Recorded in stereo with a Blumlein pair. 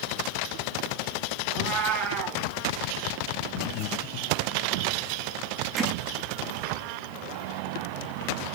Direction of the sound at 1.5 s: 35° right.